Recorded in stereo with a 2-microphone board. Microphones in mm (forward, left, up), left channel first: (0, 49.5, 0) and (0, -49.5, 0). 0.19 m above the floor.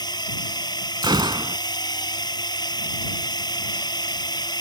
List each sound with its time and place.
0.0 s a drone: 45° left (ahead or behind)
1.0 s a gunshot: 50° right (ahead or behind)